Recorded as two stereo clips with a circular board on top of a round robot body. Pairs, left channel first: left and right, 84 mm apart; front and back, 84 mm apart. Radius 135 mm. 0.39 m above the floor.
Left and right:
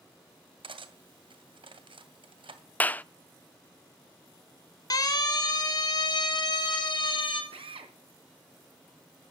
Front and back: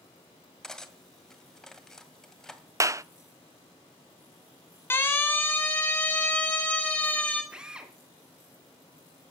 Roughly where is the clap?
Behind left.